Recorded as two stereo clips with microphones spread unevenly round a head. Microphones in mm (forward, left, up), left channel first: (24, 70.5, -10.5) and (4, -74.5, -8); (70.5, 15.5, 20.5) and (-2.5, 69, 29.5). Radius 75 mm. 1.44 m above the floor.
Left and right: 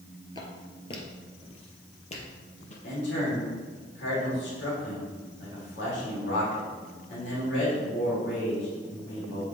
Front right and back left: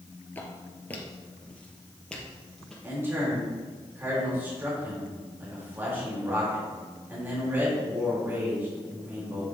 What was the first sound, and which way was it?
Footsteps, 30° left.